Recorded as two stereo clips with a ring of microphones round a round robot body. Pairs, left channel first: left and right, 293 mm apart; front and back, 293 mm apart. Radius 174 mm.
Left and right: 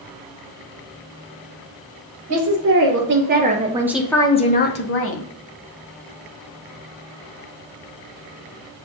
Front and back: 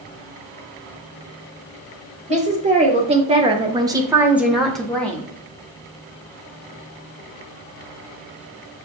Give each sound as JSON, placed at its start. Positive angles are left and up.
{"t": 2.3, "sound": "a woman speaking", "azimuth_deg": -115, "distance_m": 1.1}